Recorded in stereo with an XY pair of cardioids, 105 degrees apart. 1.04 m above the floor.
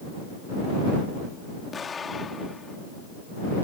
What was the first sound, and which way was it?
An explosion, 35° left.